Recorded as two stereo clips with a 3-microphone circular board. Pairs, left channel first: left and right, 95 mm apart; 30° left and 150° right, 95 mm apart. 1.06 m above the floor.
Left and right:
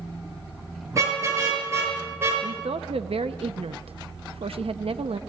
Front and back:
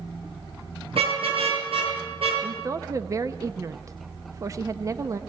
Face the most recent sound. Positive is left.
turn(degrees=-95)